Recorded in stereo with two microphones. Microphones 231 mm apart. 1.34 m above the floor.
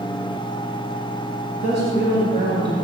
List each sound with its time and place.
1.6 s a woman speaking: 55° right (ahead or behind), 6.5 m